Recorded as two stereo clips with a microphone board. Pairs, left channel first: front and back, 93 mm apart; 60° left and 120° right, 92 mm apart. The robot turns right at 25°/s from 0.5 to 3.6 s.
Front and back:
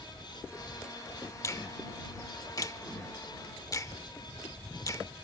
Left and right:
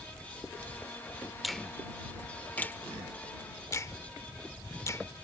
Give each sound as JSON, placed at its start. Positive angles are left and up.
{"t": 1.4, "sound": "a finger snap", "azimuth_deg": -30}